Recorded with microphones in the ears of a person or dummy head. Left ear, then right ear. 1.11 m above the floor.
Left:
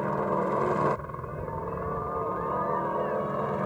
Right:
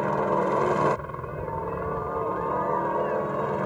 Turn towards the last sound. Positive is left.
turn(degrees=-5)  # may be behind; listen again after turning